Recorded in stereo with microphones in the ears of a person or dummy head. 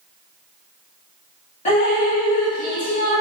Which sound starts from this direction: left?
Dripping, at 1.6 s.